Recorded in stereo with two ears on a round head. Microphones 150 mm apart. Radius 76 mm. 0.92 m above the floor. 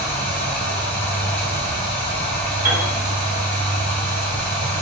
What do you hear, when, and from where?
0.0 s running water: 35° left (ahead or behind), 1.4 m
2.6 s a piano: 15° right (ahead or behind), 1.1 m